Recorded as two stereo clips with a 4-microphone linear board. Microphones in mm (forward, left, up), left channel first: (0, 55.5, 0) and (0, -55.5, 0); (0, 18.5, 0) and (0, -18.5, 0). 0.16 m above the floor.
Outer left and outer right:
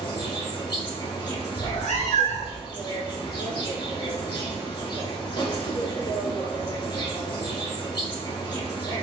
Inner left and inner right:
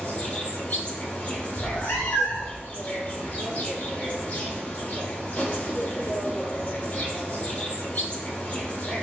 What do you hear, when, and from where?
0.0 s an insect: 40° left (ahead or behind), 1.9 m
1.6 s a cat meowing: 80° left, 1.5 m